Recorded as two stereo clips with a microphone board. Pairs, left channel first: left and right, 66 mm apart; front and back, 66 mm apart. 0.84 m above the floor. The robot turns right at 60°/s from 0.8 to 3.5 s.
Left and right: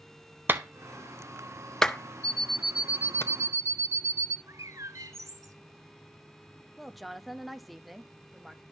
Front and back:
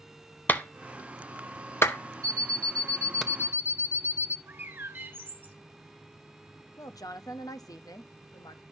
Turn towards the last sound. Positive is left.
turn(degrees=0)